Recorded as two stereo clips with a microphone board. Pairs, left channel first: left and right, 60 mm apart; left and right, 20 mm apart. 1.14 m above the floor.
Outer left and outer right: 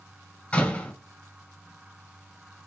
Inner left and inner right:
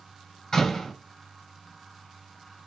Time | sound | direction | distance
0.5 | a door slam | 20° left (ahead or behind) | 3 m